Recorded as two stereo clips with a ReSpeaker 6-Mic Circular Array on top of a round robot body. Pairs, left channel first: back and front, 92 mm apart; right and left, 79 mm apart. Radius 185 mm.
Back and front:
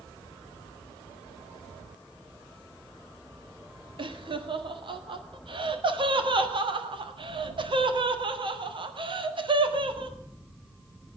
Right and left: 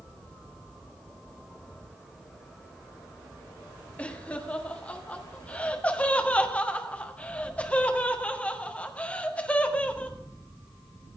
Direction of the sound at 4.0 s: 20° right.